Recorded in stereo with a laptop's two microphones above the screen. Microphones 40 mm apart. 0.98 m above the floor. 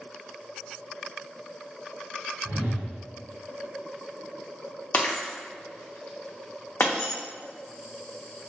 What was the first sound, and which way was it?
A whoosh, 75° right (ahead or behind).